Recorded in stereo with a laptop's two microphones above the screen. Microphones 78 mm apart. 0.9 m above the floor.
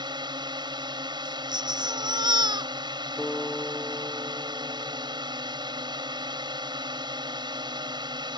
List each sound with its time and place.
0.0 s a drone: 75° right (ahead or behind)
1.2 s a baby crying: 65° right (ahead or behind)
3.2 s a guitar: 10° left (ahead or behind)